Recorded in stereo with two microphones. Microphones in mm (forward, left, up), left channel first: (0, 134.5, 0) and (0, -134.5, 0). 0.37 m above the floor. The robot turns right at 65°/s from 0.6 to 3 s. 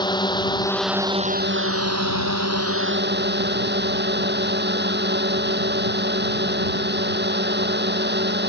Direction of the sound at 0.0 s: 165° left.